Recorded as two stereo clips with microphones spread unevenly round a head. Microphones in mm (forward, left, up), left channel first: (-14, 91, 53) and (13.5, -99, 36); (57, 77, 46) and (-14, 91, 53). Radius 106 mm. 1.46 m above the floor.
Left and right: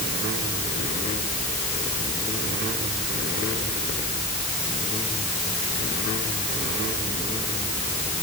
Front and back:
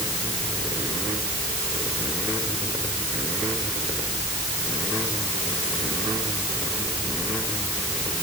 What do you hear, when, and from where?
Only background noise.